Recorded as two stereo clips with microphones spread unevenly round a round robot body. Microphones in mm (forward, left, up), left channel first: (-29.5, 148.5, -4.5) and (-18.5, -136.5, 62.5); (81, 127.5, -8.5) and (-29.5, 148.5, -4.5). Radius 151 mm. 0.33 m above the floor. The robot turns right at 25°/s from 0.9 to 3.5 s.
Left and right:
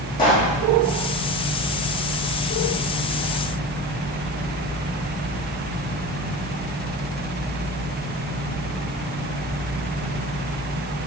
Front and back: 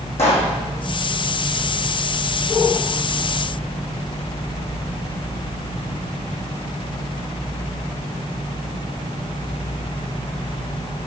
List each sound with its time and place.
0.2 s a pop: 15° left, 3.5 m